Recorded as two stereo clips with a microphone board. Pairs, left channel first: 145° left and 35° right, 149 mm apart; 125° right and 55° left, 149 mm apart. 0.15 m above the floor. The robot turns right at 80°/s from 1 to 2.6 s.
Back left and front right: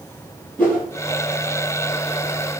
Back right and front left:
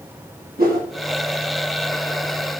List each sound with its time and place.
0.6 s a whoosh: 65° left, 7.5 m